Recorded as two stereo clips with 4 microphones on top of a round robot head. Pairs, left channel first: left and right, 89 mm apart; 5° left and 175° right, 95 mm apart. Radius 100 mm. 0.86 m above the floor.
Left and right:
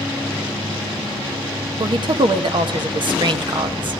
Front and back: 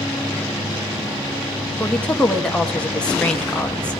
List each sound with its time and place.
1.8 s a woman speaking: 75° right, 1.3 m